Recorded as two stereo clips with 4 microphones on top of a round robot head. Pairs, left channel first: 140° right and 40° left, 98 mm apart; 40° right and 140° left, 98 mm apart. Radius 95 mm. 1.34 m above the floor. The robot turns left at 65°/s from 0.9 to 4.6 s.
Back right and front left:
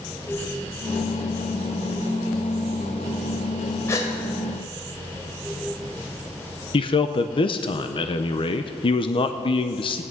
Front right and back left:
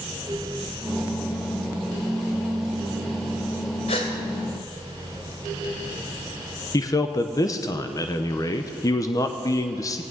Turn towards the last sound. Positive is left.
turn(degrees=-100)